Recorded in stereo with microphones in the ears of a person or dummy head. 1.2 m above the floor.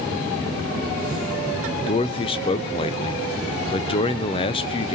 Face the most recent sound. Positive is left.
turn(degrees=25)  # may be behind; listen again after turning